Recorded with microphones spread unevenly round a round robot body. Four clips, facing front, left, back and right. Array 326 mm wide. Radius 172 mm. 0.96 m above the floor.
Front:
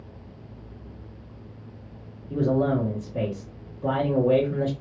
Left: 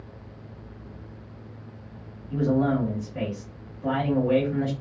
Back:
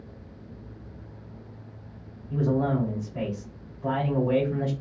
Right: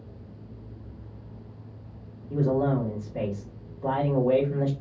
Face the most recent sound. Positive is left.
turn(degrees=-30)